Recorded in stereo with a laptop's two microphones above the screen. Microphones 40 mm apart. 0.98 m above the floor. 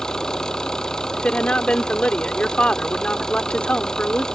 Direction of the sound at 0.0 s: 15° left (ahead or behind).